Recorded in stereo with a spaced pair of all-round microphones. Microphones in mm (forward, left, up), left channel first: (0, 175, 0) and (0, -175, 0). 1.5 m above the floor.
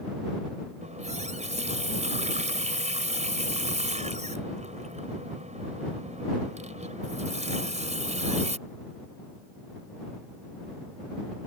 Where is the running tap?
20° right (ahead or behind).